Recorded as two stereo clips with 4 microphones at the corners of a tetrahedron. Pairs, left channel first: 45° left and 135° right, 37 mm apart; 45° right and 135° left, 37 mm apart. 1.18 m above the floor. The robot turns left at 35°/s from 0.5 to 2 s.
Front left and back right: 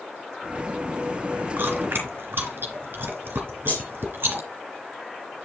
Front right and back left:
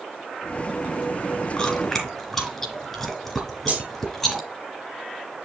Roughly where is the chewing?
Right.